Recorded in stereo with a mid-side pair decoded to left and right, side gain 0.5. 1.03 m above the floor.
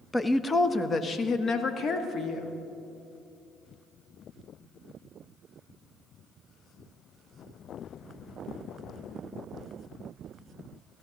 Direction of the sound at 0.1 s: 10° left.